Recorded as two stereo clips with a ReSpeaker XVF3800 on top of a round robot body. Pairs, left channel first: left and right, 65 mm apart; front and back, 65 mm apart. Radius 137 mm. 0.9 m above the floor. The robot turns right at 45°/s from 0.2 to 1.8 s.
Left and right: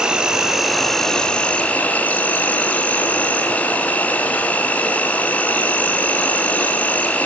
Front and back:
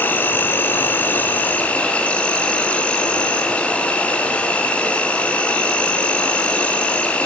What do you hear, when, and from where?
0.0 s an insect: 25° right, 1.1 m; by 7.3 s 50° left, 1.1 m